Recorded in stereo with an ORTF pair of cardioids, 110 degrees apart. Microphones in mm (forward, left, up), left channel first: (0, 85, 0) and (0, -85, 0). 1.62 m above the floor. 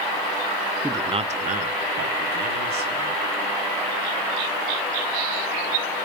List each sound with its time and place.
0.8 s a man speaking: 10° right, 0.7 m; by 3.3 s 75° right, 3 m